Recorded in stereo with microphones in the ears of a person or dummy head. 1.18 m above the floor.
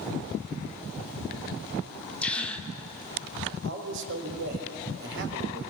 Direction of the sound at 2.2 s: 5° left (ahead or behind).